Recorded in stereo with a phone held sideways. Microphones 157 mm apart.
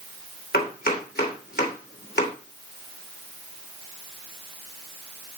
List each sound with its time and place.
0.5 s chopping: 85° left, 3 m